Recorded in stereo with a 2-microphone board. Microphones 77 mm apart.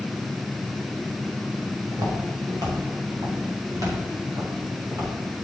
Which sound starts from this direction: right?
Footsteps, at 1.9 s.